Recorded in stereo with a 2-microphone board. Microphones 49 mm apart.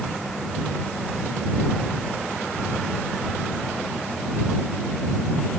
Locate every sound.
Only background noise.